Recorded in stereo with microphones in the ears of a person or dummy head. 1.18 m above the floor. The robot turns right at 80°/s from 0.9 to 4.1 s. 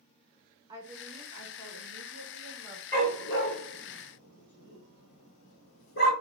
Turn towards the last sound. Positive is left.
turn(degrees=55)  # may be behind; listen again after turning